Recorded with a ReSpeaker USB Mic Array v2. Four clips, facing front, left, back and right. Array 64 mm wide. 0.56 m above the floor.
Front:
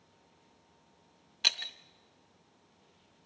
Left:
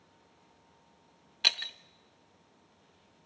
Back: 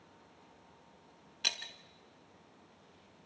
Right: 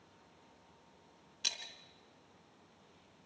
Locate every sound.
1.4 s breaking glass: 75° left, 0.7 m